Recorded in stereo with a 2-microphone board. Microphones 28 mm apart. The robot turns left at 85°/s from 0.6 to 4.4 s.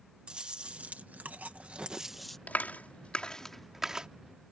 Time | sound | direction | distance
0.3 | chewing | 35° right | ?
2.5 | a clap | 70° left (ahead or behind) | ?